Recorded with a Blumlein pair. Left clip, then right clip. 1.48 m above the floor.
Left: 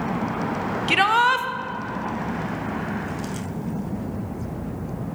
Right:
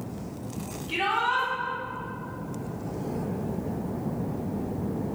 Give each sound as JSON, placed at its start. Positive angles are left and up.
{"t": 0.9, "sound": "a shout", "azimuth_deg": 40, "distance_m": 1.0}